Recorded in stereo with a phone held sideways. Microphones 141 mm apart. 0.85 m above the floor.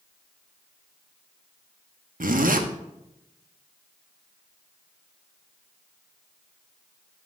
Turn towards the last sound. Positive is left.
turn(degrees=-75)  # may be behind; listen again after turning